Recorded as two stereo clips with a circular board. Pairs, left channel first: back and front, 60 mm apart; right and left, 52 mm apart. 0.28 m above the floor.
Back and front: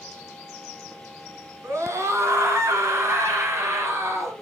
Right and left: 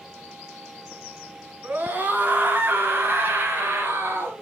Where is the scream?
35° left, 3 m; by 4.4 s 40° left, 5 m.